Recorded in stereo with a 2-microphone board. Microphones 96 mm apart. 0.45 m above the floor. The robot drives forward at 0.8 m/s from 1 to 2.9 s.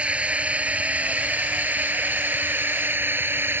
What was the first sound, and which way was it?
A drone, 10° right (ahead or behind).